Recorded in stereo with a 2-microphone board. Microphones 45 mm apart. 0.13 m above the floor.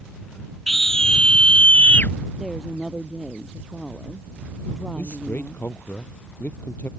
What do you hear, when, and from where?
0.7 s a scream: 5° left (ahead or behind); by 2.1 s 45° left (ahead or behind)
2.4 s a woman speaking: 10° right (ahead or behind)
5.0 s a man speaking: 45° left (ahead or behind)